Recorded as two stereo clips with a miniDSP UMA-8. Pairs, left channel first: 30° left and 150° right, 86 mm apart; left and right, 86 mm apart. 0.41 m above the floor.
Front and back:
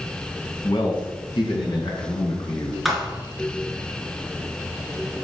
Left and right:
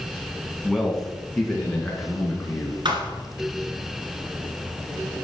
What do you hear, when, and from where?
0.6 s a man speaking: straight ahead, 3 m; by 2.8 s 5° left, 4.5 m
2.9 s a thud: 65° right, 2.5 m